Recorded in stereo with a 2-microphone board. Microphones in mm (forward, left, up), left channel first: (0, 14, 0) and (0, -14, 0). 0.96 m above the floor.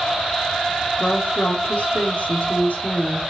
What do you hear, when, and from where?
1.0 s a woman speaking: 70° left (ahead or behind), 3 m